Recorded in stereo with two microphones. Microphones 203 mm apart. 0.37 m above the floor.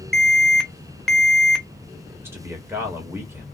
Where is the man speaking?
10° right (ahead or behind), 1.4 m.